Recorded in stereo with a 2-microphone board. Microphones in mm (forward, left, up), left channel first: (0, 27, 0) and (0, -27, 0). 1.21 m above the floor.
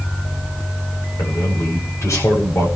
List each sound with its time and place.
1.2 s a man speaking: 65° left (ahead or behind), 7 m